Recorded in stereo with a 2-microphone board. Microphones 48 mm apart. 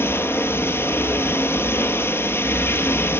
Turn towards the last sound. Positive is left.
turn(degrees=65)  # may be behind; listen again after turning